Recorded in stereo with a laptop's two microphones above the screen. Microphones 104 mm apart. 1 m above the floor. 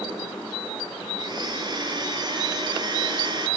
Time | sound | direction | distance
1.2 | a blender | 45° right (ahead or behind) | 6 m